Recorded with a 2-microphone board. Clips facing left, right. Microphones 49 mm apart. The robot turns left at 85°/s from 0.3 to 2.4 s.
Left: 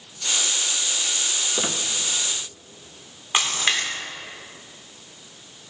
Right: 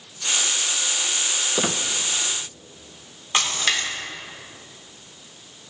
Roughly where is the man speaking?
I don't hear a man speaking.